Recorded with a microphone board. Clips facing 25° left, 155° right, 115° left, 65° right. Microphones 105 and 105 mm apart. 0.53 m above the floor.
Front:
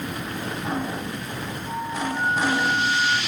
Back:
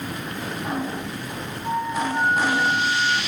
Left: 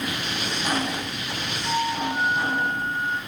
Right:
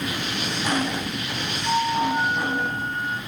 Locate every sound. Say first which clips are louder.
1.6 s a flute: back 5 dB, right 3 dB; 150° right, 6.5 m